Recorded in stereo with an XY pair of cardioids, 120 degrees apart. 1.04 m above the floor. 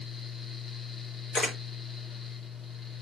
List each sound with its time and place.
0.0 s a fan: 35° left, 1.1 m
1.3 s a camera shutter: 45° left, 2.5 m